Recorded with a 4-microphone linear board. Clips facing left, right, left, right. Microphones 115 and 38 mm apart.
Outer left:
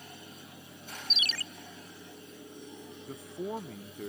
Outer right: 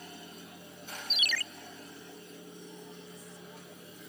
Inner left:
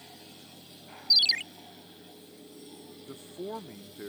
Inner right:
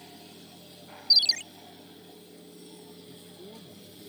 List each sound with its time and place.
1.1 s a ringtone: 30° left (ahead or behind)
3.1 s a man speaking: 60° left (ahead or behind)